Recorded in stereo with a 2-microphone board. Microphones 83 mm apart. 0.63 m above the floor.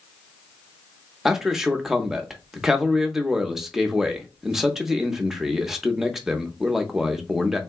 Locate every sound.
1.2 s a man speaking: 5° right (ahead or behind), 0.8 m